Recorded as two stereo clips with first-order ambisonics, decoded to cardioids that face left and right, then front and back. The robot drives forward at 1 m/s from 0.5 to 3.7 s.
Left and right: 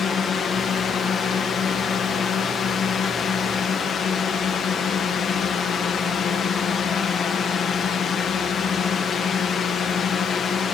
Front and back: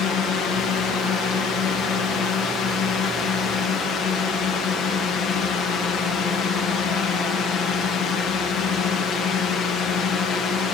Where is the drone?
35° left.